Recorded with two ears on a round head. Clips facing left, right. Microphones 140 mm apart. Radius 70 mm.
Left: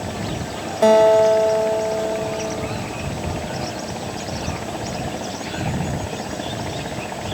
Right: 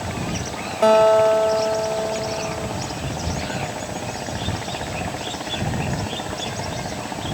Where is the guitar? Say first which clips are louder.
Left 1 dB; 15° left (ahead or behind).